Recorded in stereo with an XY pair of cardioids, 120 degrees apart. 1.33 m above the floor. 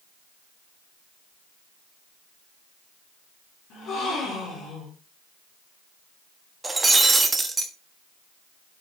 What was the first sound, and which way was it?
A gasp, 65° left.